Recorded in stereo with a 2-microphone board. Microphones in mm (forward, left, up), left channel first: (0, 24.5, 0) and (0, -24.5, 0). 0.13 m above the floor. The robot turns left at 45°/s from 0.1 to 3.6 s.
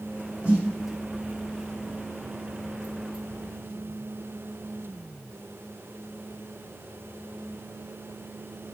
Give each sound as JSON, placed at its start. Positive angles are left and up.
{"t": 0.4, "sound": "a snare drum", "side_deg": -30, "distance_m": 4.5}